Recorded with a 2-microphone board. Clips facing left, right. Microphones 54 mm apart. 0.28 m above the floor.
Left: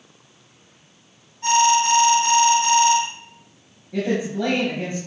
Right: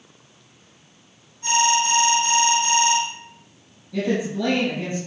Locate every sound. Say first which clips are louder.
1.4 s an alarm: left 3 dB; 60° left (ahead or behind), 2.5 m
3.9 s a woman speaking: even; 50° left (ahead or behind), 4.5 m